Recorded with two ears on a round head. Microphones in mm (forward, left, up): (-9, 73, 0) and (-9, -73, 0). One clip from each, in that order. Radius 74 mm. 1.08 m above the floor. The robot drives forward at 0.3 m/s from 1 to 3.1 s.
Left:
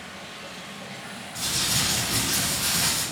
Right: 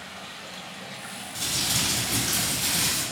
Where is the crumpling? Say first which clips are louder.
Left 1 dB; 40° right (ahead or behind), 1.8 m; by 3.0 s 30° right (ahead or behind), 2 m.